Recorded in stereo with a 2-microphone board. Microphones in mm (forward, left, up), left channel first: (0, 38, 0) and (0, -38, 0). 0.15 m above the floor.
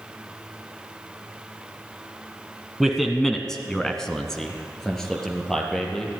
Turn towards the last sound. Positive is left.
turn(degrees=5)  # may be behind; listen again after turning